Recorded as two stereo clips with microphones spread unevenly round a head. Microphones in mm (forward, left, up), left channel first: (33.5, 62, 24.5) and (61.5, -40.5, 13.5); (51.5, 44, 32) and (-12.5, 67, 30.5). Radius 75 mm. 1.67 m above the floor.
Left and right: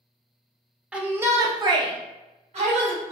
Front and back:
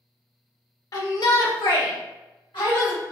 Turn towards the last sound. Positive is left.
turn(degrees=-65)